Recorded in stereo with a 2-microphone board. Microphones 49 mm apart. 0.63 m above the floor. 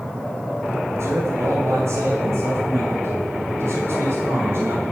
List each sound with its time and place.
1.0 s a man speaking: 70° right (ahead or behind), 2.5 m; by 4.8 s 55° right (ahead or behind), 3 m